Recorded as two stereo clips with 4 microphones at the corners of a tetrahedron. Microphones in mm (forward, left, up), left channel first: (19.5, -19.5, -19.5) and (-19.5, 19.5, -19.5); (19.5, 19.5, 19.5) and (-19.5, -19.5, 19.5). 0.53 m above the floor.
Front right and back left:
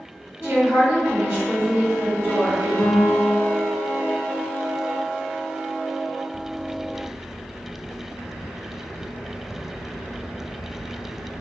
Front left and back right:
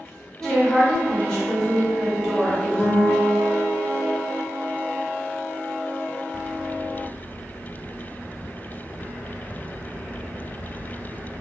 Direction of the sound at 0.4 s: 125° left.